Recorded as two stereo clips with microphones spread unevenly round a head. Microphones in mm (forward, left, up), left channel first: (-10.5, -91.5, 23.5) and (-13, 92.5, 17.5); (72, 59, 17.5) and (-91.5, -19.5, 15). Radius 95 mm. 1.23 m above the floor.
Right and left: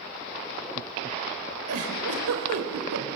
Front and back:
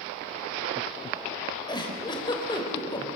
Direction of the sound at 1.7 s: 90° left.